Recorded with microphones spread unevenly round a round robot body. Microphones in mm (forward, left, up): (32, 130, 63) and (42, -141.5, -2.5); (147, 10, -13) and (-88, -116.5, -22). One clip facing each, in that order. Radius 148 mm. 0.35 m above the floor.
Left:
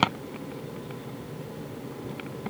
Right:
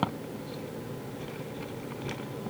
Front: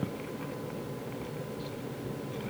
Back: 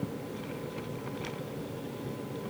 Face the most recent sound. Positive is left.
No sound to turn to.